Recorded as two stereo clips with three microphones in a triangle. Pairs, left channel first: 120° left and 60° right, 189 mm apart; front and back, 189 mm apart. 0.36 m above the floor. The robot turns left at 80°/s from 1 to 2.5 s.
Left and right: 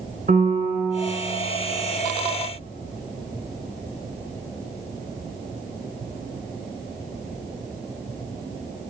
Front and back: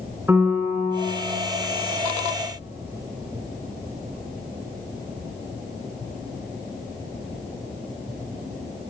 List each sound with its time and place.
0.3 s a piano: 100° right, 3.5 m; by 1.1 s 110° right, 3.5 m